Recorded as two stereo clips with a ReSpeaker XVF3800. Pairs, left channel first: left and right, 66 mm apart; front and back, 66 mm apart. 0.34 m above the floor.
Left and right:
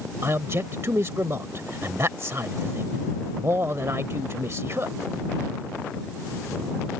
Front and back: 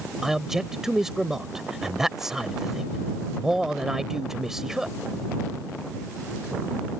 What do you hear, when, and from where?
0.2 s a man speaking: 100° right